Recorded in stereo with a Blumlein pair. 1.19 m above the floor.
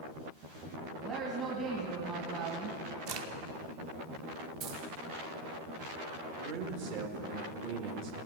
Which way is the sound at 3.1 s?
40° right.